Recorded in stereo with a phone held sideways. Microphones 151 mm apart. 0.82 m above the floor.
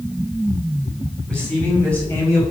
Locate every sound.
1.3 s a man speaking: 5° left (ahead or behind), 4.5 m; by 2.4 s 15° left (ahead or behind), 4 m